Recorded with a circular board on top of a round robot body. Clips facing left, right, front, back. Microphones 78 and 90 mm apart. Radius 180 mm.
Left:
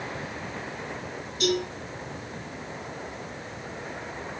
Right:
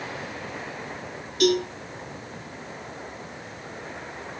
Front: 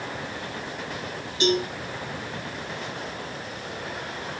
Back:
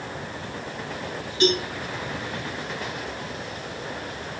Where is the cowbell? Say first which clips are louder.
Right 5 dB, back 1 dB; 70° right, 7.5 m.